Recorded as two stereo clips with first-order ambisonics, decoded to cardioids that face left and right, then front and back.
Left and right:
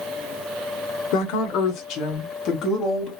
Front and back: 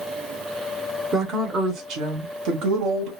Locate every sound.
1.1 s a woman speaking: 105° left, 0.9 m; by 3.1 s 150° left, 1.5 m